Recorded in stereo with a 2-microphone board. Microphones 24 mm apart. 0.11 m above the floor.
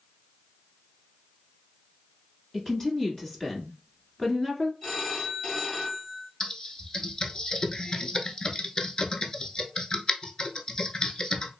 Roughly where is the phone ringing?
Left.